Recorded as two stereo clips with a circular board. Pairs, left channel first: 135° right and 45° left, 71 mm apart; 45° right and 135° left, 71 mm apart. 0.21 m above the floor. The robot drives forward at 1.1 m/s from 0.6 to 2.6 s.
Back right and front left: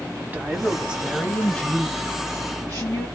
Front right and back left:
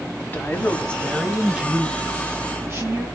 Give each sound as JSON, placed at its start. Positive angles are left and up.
{"t": 0.3, "sound": "a woman speaking", "azimuth_deg": 0, "distance_m": 1.2}